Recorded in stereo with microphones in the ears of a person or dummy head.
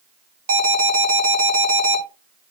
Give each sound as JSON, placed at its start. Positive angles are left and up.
{"t": 0.5, "sound": "an alarm", "side_deg": -85, "distance_m": 3.5}